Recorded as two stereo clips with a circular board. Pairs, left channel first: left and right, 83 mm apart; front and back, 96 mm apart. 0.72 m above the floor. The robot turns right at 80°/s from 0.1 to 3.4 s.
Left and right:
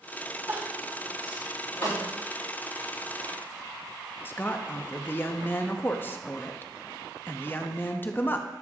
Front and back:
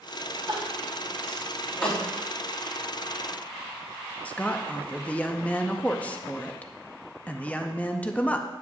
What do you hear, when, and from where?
0.5 s crying: 155° right, 3.5 m; by 2.1 s 25° right, 3.5 m
1.8 s a snare drum: 80° left, 1.8 m; by 2.0 s 90° left, 1.8 m
4.2 s a woman speaking: 60° left, 0.5 m